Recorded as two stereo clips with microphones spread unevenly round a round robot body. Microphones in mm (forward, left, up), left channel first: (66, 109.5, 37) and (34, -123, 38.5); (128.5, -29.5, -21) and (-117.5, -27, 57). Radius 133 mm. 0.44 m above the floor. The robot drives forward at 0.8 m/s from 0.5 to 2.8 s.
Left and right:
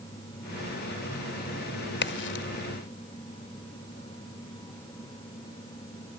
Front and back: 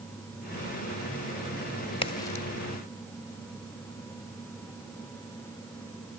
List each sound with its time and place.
2.0 s a crack: 50° left, 1.6 m; by 2.5 s 65° left, 1.5 m